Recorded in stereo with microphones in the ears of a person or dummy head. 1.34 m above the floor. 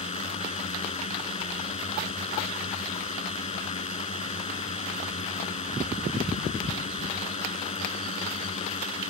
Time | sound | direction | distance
0.0 | a drone | 40° left (ahead or behind) | ?